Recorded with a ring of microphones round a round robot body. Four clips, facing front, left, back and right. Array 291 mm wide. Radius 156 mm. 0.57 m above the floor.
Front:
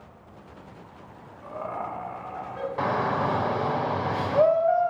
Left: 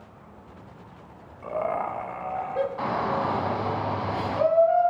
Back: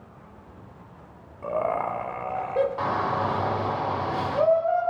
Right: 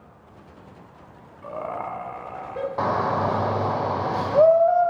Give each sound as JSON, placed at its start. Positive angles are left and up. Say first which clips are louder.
{"t": 1.4, "sound": "laughter", "louder": "left 3 dB, back 7 dB", "azimuth_deg": 165, "distance_m": 3.0}
{"t": 2.8, "sound": "a shout", "louder": "right 3 dB, even", "azimuth_deg": -70, "distance_m": 2.5}